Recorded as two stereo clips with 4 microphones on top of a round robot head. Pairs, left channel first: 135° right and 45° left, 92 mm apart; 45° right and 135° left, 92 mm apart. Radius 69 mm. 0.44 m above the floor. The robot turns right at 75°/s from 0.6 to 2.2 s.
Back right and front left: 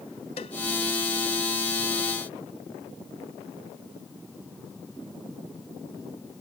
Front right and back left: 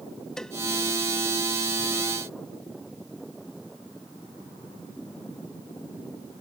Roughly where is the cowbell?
Behind right.